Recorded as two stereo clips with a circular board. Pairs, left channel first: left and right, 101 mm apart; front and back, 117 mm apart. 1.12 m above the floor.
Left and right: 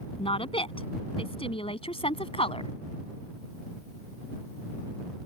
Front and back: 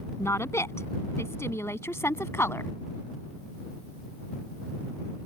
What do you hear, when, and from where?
0.2 s a woman speaking: 65° left; by 2.7 s 70° left